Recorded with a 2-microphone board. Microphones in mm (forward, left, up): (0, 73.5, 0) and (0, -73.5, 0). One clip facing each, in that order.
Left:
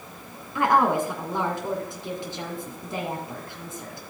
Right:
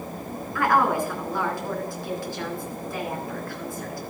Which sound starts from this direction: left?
A woman speaking, at 0.6 s.